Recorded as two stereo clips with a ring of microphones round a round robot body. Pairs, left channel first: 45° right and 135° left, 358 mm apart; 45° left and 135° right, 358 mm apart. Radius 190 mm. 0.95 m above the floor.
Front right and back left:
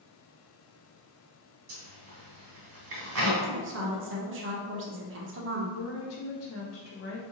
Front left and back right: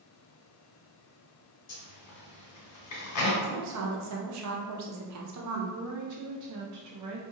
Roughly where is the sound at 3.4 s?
Behind.